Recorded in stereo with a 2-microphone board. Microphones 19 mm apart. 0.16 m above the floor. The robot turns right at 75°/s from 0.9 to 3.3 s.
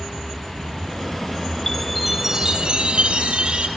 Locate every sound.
1.7 s a chime: 155° left, 3 m; by 3.7 s 80° right, 3 m